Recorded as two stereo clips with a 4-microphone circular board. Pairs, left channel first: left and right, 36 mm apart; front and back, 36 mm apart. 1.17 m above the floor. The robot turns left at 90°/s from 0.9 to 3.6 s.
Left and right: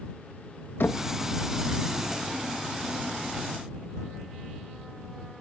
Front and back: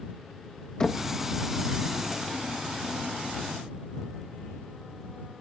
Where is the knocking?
75° left; by 1.1 s 60° left.